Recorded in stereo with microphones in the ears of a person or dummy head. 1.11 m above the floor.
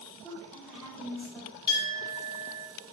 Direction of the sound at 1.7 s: 20° left (ahead or behind).